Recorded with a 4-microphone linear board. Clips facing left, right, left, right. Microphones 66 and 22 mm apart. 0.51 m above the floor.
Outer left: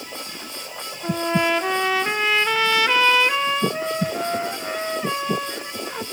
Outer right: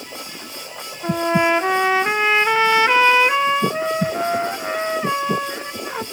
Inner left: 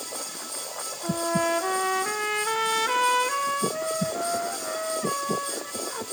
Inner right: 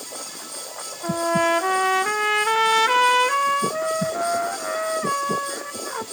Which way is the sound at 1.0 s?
25° right (ahead or behind).